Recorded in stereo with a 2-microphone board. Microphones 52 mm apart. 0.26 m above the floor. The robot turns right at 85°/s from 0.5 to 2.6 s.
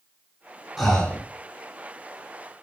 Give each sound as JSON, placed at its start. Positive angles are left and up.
{"t": 0.8, "sound": "breathing", "azimuth_deg": 0, "distance_m": 2.0}